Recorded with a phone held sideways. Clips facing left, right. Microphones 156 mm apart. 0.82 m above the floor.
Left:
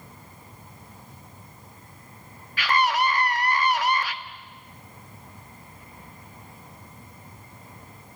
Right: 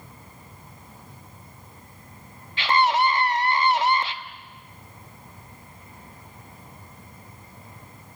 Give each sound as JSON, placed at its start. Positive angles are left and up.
{"t": 2.6, "sound": "a scream", "side_deg": -25, "distance_m": 1.4}